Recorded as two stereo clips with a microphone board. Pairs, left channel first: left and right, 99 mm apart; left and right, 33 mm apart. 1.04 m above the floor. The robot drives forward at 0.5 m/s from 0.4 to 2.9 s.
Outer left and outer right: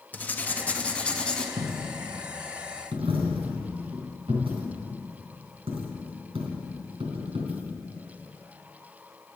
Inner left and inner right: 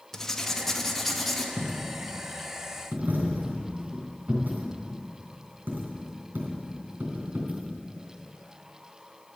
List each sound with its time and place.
0.1 s writing: 15° left (ahead or behind), 0.7 m; by 1.5 s 10° left (ahead or behind), 1.2 m
1.6 s a dropped coin: 75° right (ahead or behind), 3 m